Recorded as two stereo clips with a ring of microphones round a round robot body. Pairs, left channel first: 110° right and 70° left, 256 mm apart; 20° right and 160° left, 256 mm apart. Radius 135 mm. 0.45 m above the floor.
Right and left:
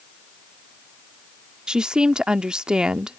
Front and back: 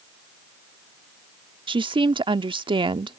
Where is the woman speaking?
150° left.